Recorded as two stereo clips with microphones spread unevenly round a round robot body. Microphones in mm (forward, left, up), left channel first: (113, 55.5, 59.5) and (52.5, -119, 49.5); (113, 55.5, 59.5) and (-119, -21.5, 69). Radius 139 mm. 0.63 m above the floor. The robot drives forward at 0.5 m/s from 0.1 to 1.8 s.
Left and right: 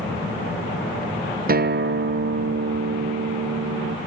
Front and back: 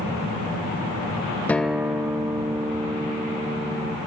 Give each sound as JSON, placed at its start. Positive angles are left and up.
{"t": 1.5, "sound": "a guitar", "azimuth_deg": -65, "distance_m": 0.8}